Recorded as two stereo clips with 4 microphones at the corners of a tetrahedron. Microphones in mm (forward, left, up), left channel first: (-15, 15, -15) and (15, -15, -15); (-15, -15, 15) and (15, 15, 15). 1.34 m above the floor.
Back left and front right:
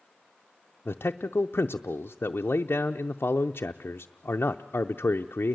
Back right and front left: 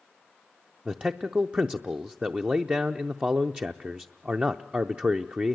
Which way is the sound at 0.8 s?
100° left.